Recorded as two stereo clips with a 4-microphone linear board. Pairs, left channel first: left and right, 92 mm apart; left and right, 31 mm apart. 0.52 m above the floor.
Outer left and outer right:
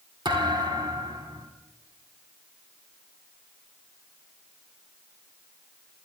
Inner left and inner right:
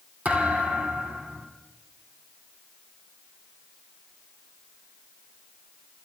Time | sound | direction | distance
0.2 | a thud | 55° right (ahead or behind) | 2.5 m